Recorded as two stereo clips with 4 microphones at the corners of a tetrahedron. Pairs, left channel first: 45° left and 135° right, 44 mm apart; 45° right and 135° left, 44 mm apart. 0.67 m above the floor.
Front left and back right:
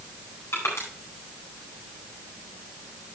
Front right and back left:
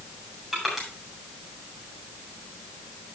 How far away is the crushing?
About 7.5 m.